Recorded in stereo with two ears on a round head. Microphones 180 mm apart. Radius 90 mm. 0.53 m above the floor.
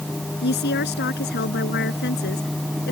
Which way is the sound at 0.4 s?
55° left (ahead or behind).